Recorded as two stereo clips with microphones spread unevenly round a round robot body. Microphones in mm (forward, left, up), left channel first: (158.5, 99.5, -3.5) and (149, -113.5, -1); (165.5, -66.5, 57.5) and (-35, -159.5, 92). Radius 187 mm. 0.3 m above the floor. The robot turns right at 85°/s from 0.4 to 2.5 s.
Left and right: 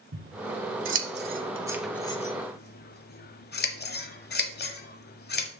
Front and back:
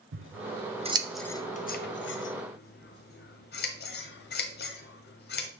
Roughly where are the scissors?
Behind right.